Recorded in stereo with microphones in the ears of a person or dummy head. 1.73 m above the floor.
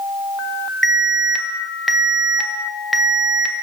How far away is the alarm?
About 1.2 m.